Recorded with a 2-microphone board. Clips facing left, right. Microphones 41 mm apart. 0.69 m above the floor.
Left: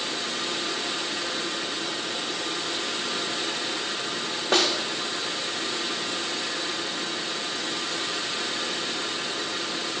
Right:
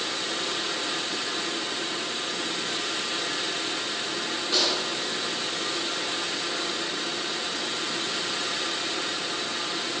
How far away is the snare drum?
About 0.9 m.